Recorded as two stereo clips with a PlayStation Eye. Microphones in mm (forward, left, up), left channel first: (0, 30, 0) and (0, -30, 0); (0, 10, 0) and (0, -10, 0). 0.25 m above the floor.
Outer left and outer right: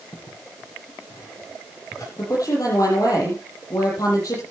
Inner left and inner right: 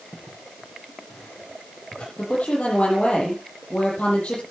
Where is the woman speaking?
80° left, 8.5 m.